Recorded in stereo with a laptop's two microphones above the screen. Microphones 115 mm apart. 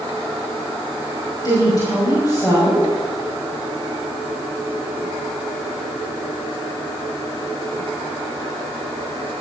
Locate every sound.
1.4 s a woman speaking: 35° left (ahead or behind), 5 m